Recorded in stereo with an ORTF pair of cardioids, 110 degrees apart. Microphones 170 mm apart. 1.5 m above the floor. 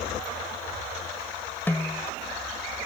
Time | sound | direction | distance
1.7 | a snare drum | 10° left | ?